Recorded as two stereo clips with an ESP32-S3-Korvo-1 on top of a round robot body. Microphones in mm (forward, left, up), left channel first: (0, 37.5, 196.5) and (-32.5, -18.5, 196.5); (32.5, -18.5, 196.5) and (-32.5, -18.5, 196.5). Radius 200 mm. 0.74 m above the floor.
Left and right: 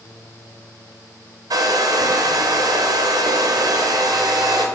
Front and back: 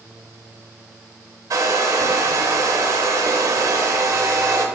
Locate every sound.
1.5 s a hair dryer: 145° right, 0.6 m